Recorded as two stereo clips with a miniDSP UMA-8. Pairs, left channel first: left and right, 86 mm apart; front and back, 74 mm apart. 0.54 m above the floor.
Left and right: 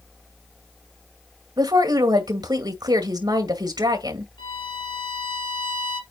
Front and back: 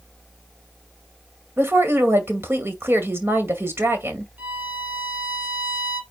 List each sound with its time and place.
1.6 s a woman speaking: 125° right, 2 m
4.4 s a violin: 115° left, 2.5 m